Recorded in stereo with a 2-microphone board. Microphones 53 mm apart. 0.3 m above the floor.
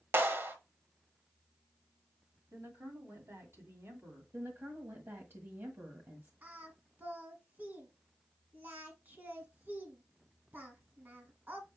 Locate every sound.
0.1 s a clap: 45° right (ahead or behind), 0.9 m
2.5 s a woman speaking: 55° right (ahead or behind), 2.5 m
4.3 s a woman speaking: 50° right (ahead or behind), 1.4 m
6.4 s singing: 35° right (ahead or behind), 1.5 m